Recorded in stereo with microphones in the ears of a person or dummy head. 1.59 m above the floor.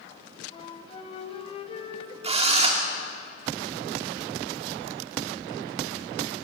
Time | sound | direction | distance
0.5 | a flute | 30° left (ahead or behind) | 2.5 m
2.2 | a drill | 30° right (ahead or behind) | 3 m